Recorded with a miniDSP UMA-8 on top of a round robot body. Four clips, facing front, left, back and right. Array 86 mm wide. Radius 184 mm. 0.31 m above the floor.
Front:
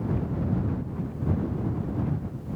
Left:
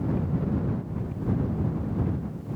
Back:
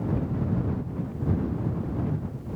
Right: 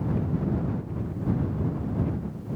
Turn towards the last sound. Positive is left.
No sound to turn to.